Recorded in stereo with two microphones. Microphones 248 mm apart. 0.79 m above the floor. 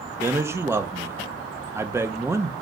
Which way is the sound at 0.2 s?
10° right (ahead or behind).